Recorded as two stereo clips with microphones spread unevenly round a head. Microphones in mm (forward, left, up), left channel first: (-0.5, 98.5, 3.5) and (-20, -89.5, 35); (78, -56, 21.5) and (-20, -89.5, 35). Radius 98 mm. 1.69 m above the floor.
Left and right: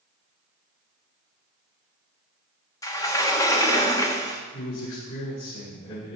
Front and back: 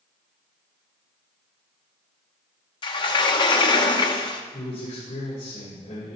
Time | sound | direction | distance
2.8 | a sliding door | 5° left | 0.9 m
4.5 | a man speaking | 75° left | 5.5 m